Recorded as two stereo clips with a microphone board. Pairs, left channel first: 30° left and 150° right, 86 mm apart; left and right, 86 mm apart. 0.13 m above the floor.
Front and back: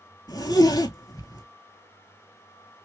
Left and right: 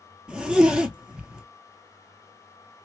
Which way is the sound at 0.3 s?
10° right.